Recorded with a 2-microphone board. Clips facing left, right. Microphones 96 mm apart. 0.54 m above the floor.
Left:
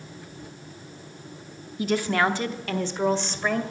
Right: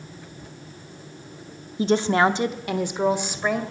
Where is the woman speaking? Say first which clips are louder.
Right 4 dB; 30° right (ahead or behind), 0.7 m; by 3.6 s 10° right (ahead or behind), 2 m.